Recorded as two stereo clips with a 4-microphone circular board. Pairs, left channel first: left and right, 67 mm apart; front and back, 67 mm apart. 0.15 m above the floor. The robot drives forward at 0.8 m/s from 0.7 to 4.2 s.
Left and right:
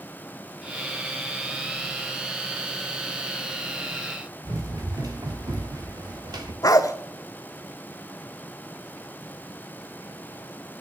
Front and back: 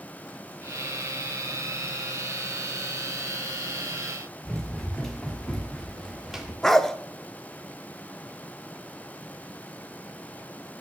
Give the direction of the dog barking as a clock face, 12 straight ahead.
9 o'clock.